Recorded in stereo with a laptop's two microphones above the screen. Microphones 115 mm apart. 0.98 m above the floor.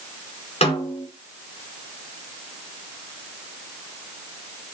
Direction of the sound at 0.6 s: 65° left (ahead or behind).